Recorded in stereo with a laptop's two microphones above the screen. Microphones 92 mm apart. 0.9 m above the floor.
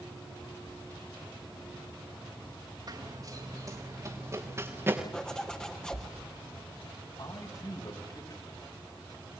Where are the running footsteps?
50° right (ahead or behind), 5 m; by 5.0 s 25° right (ahead or behind), 5.5 m.